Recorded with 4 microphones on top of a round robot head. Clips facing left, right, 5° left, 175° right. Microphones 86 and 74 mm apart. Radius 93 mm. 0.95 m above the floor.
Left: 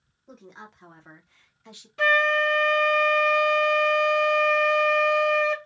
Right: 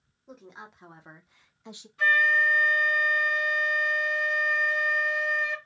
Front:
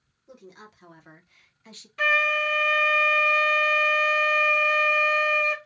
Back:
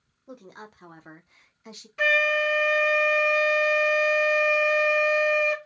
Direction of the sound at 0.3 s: 175° right.